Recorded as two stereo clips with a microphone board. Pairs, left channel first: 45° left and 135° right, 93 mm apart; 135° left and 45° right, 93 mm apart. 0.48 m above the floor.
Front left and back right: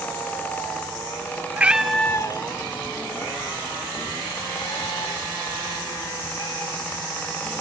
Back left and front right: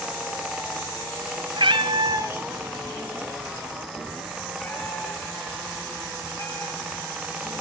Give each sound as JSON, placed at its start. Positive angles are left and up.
{"t": 1.6, "sound": "a cat meowing", "azimuth_deg": -65, "distance_m": 1.0}